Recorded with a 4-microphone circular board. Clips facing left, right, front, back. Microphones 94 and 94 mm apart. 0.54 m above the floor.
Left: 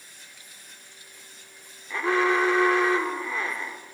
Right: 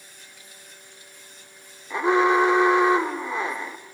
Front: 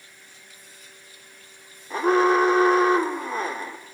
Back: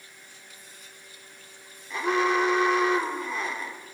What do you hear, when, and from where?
1.9 s an alarm: 25° right, 1.9 m